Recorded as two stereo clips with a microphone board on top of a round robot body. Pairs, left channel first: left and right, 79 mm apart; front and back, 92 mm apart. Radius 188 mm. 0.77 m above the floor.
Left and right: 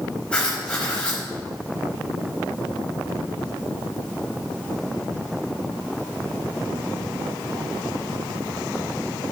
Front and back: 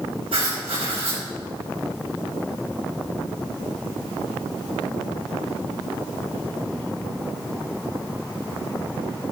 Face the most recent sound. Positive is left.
turn(degrees=165)